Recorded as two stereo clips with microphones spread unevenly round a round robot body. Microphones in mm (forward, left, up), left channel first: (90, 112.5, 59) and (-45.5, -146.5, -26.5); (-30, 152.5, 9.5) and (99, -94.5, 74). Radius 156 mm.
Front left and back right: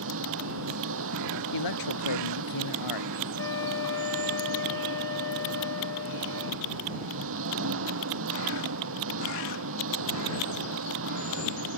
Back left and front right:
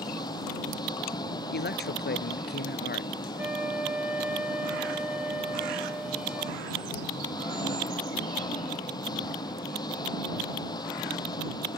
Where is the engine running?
165° right.